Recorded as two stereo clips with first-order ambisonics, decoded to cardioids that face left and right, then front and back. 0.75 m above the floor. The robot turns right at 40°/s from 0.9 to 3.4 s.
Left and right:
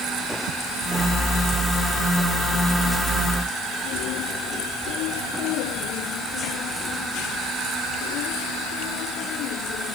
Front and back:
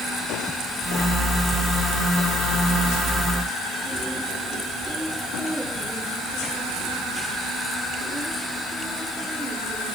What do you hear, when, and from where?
Only background noise.